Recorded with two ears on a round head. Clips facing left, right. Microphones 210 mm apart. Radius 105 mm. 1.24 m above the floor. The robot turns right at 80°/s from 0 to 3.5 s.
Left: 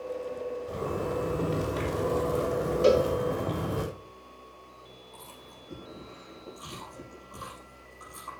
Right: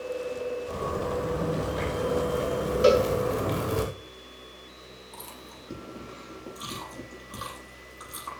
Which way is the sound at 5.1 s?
80° right.